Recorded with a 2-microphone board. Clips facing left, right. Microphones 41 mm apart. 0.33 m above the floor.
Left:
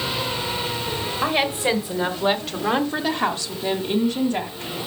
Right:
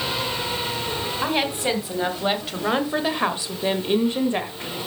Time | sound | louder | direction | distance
1.2 | a woman speaking | left 3 dB | 5° left (ahead or behind) | 2.5 m